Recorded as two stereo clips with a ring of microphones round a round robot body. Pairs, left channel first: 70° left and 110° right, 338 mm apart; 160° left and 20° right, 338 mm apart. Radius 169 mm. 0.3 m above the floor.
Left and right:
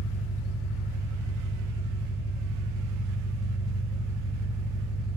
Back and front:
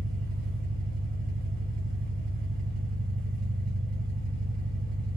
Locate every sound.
0.0 s an engine running: 15° left, 1.1 m